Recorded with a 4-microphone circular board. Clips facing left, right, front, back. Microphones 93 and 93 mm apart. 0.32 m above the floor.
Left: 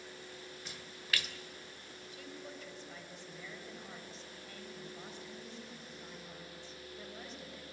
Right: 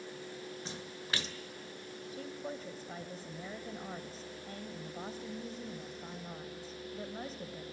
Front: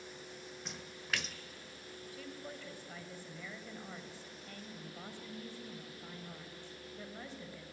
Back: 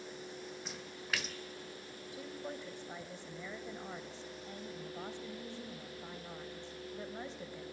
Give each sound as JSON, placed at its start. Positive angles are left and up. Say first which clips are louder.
{"t": 0.7, "sound": "a splash", "louder": "left 1 dB, front 1 dB", "azimuth_deg": -90, "distance_m": 0.8}
{"t": 2.1, "sound": "a woman speaking", "louder": "right 7 dB, back 5 dB", "azimuth_deg": -120, "distance_m": 1.9}